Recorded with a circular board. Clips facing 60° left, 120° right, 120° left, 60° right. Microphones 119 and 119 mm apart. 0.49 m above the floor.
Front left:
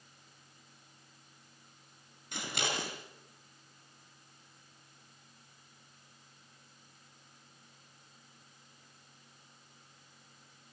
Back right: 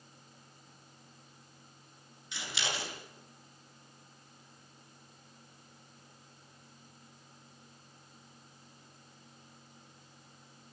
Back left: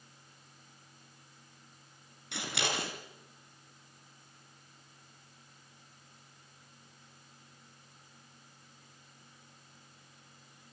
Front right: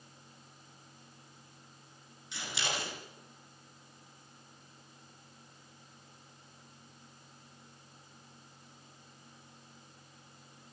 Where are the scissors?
100° left, 5.5 m.